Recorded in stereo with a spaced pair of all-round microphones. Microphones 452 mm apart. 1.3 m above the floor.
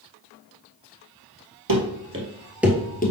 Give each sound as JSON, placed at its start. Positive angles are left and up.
{"t": 1.7, "sound": "running footsteps", "side_deg": -45, "distance_m": 2.0}